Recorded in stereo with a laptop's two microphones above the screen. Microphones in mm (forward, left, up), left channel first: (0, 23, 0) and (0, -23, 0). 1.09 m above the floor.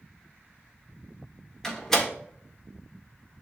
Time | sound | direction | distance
1.6 | a door slam | 10° left (ahead or behind) | 1.8 m